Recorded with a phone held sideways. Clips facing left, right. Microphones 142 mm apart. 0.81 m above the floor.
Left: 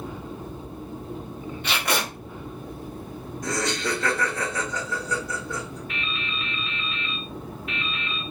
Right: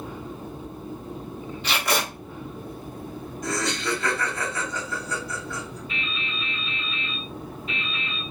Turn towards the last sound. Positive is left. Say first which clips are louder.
# left 1 dB
turn(degrees=60)  # may be behind; listen again after turning